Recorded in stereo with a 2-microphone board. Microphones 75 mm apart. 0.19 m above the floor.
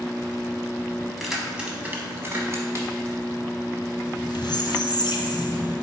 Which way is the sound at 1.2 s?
Centre (ahead or behind).